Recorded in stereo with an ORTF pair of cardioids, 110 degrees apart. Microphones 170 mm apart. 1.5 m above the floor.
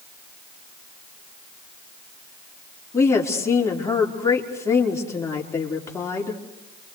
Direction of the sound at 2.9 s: 15° left.